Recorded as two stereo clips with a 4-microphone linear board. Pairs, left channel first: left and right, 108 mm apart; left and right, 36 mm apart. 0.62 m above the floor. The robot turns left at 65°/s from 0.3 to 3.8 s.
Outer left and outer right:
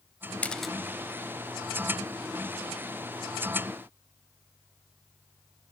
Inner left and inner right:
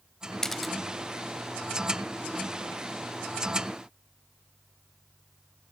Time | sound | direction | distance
0.4 | a camera shutter | 15° left (ahead or behind) | 0.6 m